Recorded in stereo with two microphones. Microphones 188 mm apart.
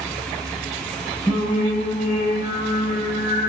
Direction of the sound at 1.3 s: 35° left (ahead or behind).